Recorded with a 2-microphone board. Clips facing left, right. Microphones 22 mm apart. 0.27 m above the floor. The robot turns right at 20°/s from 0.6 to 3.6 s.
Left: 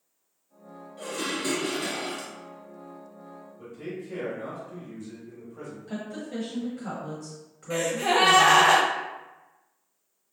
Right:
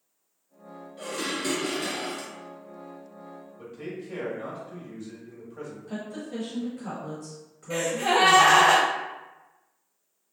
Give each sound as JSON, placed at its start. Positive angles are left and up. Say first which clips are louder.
{"t": 1.0, "sound": "dishes clattering", "louder": "even", "side_deg": -5, "distance_m": 0.8}
{"t": 3.6, "sound": "a man speaking", "louder": "even", "side_deg": -35, "distance_m": 1.1}
{"t": 5.9, "sound": "a woman speaking", "louder": "left 1 dB", "side_deg": 20, "distance_m": 0.9}
{"t": 7.7, "sound": "a gasp", "louder": "even", "side_deg": 0, "distance_m": 1.8}